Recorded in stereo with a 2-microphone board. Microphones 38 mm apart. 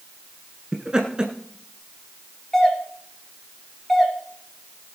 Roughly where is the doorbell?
Centre.